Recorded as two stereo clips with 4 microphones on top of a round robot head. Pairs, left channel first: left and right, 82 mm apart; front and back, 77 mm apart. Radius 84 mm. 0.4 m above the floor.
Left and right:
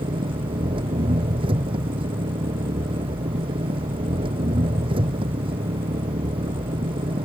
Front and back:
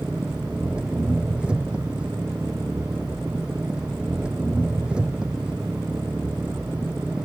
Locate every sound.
0.0 s an engine running: 100° right